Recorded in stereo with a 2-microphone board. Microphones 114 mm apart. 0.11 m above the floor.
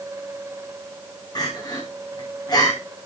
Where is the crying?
35° left (ahead or behind), 5 m.